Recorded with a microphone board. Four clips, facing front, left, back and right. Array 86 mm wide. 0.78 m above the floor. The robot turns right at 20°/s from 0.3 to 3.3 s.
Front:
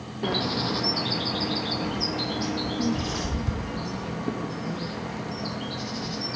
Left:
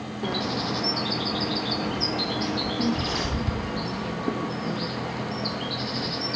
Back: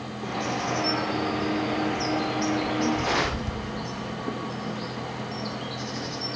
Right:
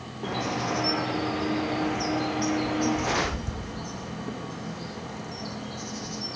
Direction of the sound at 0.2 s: 25° left.